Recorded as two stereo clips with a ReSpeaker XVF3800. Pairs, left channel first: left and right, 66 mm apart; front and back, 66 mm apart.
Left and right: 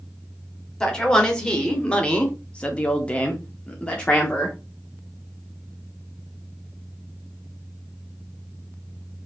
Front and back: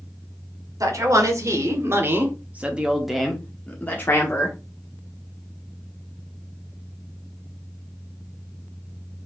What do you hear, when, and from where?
0.8 s a man speaking: 165° left, 1.5 m; by 4.6 s 15° left, 1.1 m